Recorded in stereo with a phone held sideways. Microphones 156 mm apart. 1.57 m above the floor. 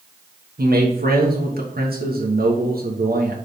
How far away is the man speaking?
About 1.3 m.